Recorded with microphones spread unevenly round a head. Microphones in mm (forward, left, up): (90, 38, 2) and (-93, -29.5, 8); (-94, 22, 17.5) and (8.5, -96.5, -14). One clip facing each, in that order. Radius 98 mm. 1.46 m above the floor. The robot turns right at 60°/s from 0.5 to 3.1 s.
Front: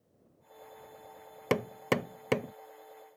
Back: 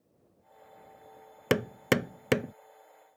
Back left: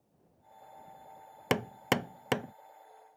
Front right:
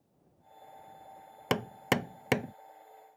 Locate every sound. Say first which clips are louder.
1.5 s hammering: back 3 dB, even; 165° left; by 2.5 s 130° right